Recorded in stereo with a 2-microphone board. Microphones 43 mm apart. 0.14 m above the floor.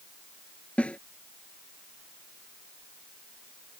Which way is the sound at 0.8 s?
30° left (ahead or behind).